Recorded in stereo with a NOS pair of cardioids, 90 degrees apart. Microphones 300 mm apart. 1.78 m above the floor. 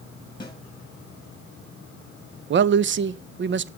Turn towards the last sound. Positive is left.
turn(degrees=-40)